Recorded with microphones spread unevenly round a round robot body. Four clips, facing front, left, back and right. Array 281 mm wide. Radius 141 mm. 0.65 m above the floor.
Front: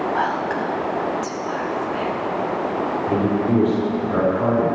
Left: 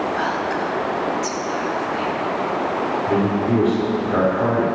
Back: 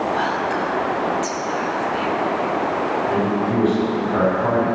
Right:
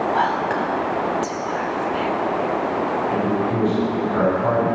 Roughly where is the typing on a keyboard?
No typing on a keyboard in this recording.